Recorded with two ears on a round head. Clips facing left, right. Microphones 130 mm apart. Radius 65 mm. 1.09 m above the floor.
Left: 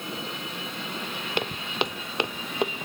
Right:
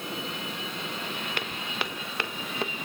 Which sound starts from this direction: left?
Footsteps, at 1.4 s.